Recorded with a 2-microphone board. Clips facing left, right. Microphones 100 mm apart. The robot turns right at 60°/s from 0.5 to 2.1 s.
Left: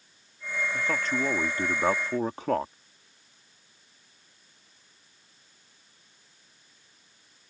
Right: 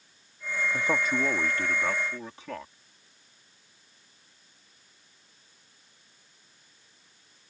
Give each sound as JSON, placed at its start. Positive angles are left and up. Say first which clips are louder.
{"t": 0.7, "sound": "a man speaking", "louder": "right 2 dB", "azimuth_deg": -30}